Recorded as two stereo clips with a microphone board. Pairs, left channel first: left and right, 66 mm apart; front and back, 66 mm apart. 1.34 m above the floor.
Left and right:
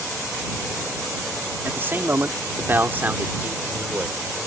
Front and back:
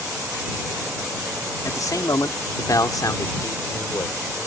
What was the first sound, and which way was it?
A man speaking, 30° right.